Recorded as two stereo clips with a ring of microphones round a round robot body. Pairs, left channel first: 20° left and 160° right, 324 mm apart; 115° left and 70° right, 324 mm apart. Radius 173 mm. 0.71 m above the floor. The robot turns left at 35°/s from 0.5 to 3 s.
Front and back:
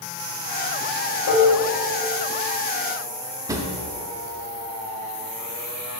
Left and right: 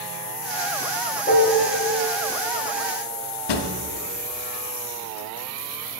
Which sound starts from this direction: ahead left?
Dishes clattering, at 1.3 s.